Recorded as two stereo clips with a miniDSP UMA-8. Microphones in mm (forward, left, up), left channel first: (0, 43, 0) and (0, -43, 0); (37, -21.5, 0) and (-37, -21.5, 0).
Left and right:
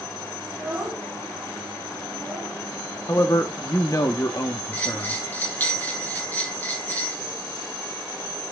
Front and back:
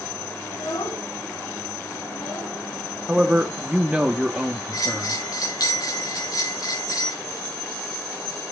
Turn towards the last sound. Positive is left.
turn(degrees=20)